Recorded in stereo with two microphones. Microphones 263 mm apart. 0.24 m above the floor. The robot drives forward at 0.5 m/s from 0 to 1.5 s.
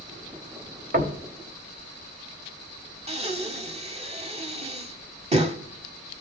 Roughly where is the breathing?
Right.